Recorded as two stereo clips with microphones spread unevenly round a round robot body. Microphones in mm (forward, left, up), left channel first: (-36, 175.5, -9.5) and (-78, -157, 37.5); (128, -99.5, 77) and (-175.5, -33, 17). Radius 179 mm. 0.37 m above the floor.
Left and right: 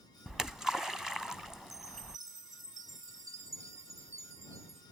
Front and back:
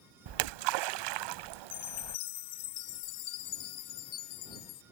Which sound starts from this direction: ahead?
A chime, at 1.7 s.